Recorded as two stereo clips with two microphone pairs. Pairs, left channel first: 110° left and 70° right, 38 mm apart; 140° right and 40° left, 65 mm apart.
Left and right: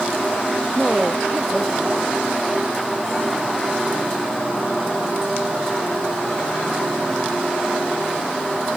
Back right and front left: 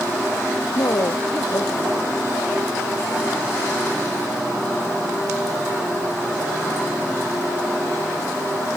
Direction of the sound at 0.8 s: 160° right.